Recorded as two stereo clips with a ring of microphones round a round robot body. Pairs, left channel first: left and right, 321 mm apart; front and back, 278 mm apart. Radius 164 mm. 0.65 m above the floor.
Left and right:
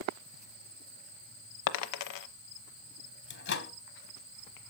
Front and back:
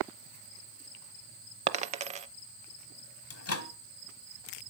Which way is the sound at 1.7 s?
115° left.